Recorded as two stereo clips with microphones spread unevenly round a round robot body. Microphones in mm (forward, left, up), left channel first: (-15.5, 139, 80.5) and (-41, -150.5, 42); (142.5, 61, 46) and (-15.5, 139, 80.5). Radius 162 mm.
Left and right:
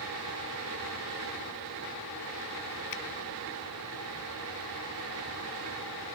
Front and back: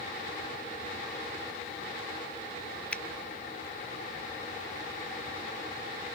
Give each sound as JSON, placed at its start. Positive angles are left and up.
{"t": 2.9, "sound": "a finger snap", "azimuth_deg": 55}